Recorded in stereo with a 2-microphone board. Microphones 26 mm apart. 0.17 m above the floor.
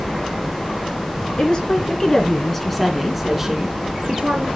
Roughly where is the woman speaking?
Left.